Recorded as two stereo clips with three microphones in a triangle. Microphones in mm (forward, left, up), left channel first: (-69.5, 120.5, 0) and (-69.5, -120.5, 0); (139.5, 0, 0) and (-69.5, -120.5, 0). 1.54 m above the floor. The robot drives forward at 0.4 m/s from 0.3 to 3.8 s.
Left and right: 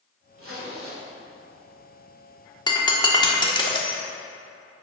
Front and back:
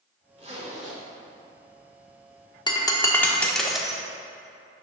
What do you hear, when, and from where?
0.4 s a zipper: 90° right, 2 m; by 1.0 s 95° right, 2 m
2.7 s breaking glass: 60° left, 1.1 m; by 4.0 s 125° left, 1.1 m